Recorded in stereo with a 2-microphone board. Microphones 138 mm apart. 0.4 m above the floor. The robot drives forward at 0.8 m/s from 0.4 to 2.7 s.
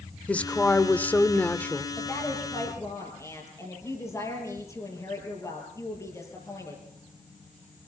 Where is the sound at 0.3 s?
10° left (ahead or behind), 1.3 m.